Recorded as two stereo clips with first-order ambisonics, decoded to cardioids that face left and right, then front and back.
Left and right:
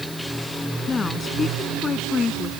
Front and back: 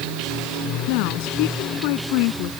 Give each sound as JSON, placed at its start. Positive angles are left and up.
{"t": 0.9, "sound": "a woman speaking", "azimuth_deg": 15}